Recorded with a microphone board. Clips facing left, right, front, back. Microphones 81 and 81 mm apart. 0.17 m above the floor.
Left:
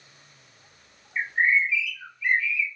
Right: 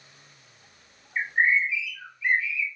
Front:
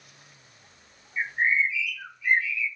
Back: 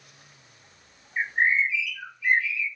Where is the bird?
160° right, 2.5 m.